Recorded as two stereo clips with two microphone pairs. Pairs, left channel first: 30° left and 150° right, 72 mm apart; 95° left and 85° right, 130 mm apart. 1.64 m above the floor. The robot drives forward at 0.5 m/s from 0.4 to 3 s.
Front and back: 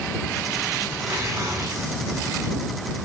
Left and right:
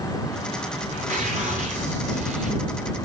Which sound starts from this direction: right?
Tearing paper, at 0.9 s.